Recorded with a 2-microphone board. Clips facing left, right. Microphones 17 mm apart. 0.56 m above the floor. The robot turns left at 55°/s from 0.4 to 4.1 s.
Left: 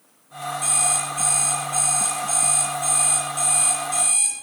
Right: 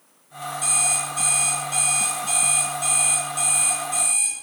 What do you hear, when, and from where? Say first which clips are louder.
0.6 s an alarm clock: even; 20° right, 4 m; by 4.3 s 145° left, 4 m